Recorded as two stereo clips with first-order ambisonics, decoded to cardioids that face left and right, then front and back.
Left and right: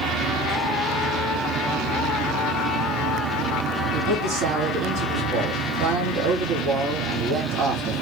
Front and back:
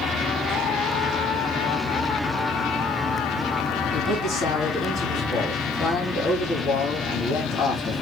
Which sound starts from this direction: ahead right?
A man speaking, at 3.9 s.